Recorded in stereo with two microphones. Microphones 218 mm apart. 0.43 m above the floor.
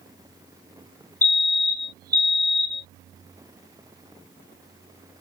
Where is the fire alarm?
50° right (ahead or behind).